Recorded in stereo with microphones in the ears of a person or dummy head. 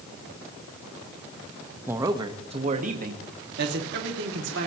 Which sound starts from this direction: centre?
A man speaking, at 1.9 s.